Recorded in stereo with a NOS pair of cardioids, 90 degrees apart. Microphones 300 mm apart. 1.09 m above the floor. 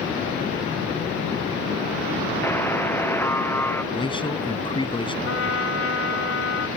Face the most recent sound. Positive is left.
turn(degrees=45)